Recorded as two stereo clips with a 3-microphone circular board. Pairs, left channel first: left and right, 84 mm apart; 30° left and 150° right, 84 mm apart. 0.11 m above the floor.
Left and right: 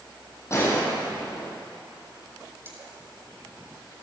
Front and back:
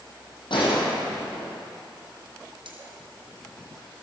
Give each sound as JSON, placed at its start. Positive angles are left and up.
{"t": 0.5, "sound": "a gunshot", "azimuth_deg": 35, "distance_m": 3.5}
{"t": 2.6, "sound": "cutlery clinking", "azimuth_deg": -155, "distance_m": 2.5}